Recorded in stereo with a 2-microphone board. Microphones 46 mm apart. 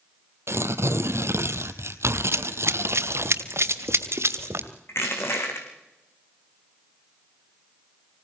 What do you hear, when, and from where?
0.5 s tearing paper: 70° right (ahead or behind), 1.3 m
2.3 s running footsteps: 65° right (ahead or behind), 1.2 m
4.9 s crushing: 65° left (ahead or behind), 5.5 m